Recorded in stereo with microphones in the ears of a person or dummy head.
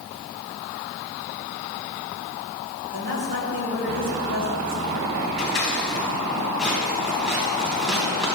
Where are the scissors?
5° right (ahead or behind), 3 m.